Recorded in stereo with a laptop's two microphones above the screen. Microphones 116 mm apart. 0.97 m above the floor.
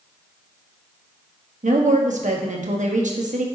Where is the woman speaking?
80° right, 1.1 m.